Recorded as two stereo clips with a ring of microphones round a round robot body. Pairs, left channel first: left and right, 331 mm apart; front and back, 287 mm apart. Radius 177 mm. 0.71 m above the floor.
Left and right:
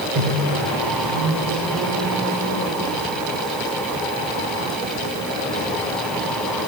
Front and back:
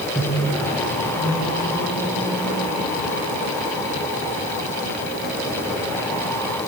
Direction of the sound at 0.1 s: 85° right.